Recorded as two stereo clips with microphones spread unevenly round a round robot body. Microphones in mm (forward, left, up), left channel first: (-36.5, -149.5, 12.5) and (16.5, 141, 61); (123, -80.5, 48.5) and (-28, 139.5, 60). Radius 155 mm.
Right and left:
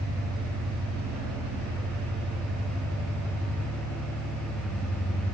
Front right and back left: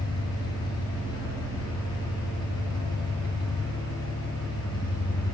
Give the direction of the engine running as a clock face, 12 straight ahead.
11 o'clock.